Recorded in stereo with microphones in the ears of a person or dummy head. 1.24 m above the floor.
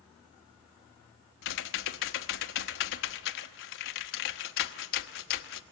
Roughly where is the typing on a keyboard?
Left.